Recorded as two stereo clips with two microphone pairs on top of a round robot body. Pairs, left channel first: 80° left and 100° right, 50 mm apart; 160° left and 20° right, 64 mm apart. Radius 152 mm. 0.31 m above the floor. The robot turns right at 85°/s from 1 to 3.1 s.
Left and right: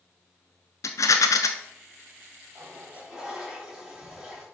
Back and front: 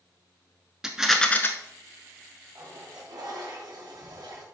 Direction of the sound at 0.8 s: 60° left.